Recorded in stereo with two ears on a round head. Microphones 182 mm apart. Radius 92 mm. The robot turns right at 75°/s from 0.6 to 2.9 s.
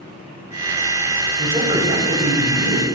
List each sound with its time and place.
1.4 s a man speaking: 175° right, 4 m; by 2.8 s 65° right, 4 m